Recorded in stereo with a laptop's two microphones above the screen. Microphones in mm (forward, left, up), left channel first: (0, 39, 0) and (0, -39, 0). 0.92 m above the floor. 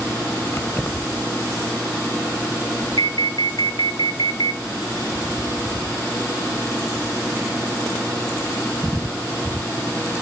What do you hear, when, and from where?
0.5 s keys jangling: 30° left (ahead or behind), 3.5 m
3.0 s an alarm: 60° left (ahead or behind), 1.1 m